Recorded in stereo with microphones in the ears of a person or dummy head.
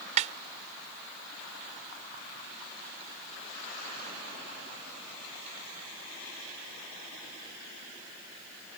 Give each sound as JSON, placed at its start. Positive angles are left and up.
{"t": 0.2, "sound": "a snare drum", "side_deg": -30}